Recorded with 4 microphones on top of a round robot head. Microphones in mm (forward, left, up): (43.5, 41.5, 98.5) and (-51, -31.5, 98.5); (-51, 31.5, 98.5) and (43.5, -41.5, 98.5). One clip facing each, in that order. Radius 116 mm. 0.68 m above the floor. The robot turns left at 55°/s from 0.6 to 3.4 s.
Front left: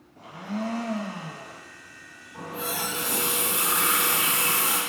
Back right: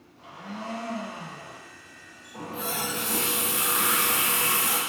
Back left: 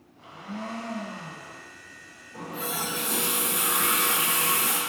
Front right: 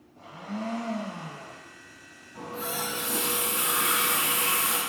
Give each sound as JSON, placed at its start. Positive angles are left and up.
{"t": 0.2, "sound": "a blender", "azimuth_deg": 5, "distance_m": 0.7}
{"t": 2.3, "sound": "a running tap", "azimuth_deg": 165, "distance_m": 1.4}